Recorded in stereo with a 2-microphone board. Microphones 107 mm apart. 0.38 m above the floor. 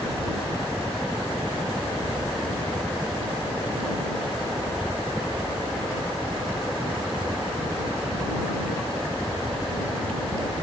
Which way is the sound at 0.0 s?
Centre (ahead or behind).